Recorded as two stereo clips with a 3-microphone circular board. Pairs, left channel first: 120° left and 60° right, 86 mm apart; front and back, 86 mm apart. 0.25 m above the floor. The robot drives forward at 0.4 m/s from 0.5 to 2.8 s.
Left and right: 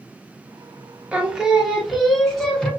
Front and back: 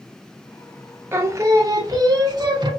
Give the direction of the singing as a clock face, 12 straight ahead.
4 o'clock.